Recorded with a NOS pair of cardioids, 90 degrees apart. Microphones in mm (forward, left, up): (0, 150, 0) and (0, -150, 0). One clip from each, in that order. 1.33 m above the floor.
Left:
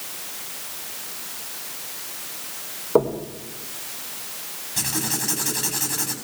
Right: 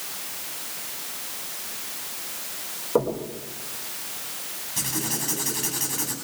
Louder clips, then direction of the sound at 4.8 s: Left 3 dB; 25° left.